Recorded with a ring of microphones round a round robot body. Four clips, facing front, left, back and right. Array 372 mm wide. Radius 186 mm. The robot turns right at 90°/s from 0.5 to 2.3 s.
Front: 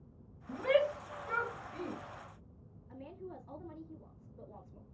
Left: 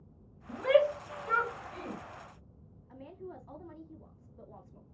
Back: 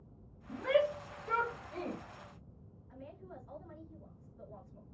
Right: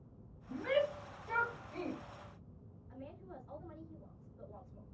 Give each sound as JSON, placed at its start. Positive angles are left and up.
{"t": 0.5, "sound": "a shout", "azimuth_deg": 45, "distance_m": 1.7}
{"t": 2.9, "sound": "a woman speaking", "azimuth_deg": 60, "distance_m": 3.0}